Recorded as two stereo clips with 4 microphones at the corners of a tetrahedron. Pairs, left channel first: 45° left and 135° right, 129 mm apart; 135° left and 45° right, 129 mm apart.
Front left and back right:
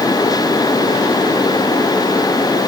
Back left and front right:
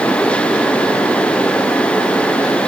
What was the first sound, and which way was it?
Only background noise.